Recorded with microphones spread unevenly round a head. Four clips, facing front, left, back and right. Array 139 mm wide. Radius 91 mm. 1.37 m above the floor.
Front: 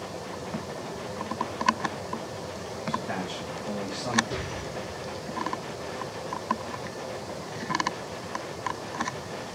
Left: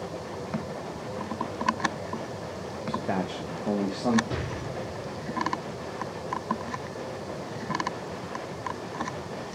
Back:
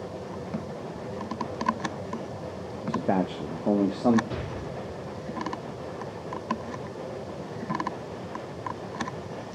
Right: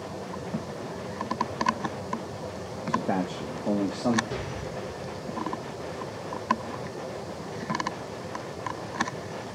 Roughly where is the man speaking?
Behind.